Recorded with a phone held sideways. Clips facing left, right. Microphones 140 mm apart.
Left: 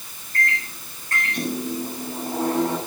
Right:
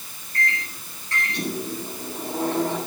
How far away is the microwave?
About 9.5 m.